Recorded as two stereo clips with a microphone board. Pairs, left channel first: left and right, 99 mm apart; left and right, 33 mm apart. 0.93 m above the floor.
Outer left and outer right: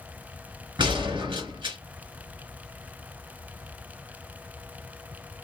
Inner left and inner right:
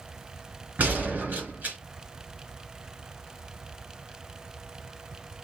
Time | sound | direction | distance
0.8 | a gunshot | 55° right (ahead or behind) | 2.5 m